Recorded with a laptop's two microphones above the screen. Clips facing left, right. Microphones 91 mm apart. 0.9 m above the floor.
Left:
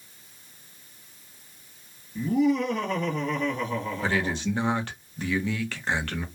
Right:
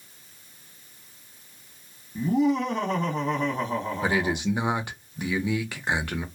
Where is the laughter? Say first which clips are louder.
Even; 35° right (ahead or behind), 1.2 m.